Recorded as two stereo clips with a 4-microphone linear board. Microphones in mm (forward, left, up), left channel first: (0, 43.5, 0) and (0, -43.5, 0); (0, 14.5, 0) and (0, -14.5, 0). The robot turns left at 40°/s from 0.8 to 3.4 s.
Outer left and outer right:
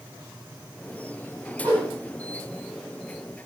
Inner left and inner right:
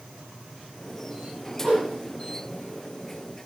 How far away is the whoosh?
About 1.7 m.